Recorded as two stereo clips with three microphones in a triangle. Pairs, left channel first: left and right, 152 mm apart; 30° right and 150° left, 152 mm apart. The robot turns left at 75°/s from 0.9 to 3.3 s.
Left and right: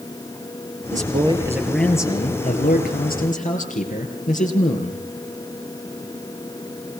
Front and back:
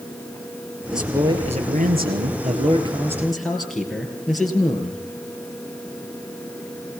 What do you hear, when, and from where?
0.9 s a man speaking: 120° right, 5.5 m; by 5.0 s 60° left, 5.5 m